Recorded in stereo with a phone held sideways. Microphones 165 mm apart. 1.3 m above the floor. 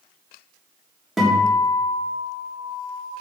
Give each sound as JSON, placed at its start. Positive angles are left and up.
{"t": 1.2, "sound": "a guitar", "side_deg": 0, "distance_m": 3.5}